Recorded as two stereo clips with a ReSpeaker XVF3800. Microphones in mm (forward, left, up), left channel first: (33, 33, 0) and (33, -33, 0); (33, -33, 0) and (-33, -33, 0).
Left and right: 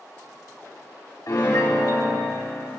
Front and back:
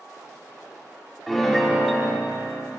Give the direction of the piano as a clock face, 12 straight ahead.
9 o'clock.